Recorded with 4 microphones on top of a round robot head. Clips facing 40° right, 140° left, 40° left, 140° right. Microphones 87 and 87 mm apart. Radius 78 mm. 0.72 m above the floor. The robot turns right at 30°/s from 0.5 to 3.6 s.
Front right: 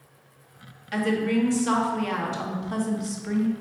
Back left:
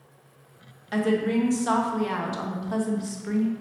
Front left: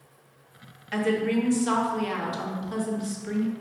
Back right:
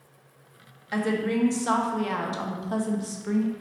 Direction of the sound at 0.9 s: 160° left.